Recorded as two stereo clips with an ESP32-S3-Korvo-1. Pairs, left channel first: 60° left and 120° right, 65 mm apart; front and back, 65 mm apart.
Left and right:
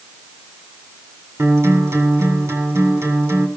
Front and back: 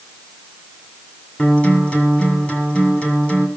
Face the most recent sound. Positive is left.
turn(degrees=-70)